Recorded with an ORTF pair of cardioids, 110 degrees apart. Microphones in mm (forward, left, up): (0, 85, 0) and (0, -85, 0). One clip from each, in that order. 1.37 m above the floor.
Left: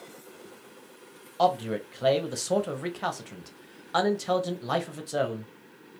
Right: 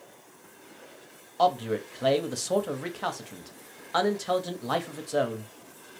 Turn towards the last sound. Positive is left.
turn(degrees=0)